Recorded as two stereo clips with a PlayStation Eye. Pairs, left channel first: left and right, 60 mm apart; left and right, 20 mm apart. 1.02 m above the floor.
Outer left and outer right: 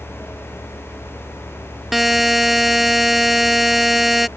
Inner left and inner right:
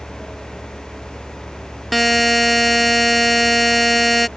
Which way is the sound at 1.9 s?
5° right (ahead or behind).